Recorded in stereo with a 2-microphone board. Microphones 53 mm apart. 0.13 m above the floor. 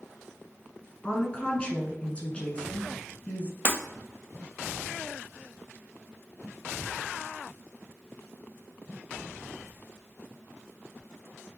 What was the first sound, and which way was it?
A woman speaking, 20° left (ahead or behind).